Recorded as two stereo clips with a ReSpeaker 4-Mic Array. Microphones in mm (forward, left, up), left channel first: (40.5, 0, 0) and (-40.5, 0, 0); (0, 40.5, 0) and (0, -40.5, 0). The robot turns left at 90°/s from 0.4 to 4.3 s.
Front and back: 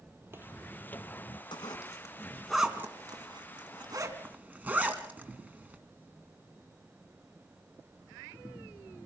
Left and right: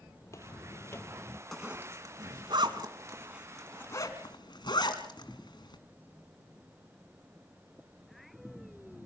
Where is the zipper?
Straight ahead, 2 m; by 5.8 s 110° left, 2 m.